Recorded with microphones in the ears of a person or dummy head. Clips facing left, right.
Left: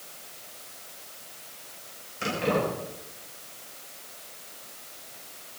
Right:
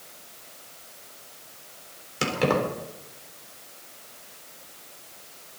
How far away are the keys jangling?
About 4.5 m.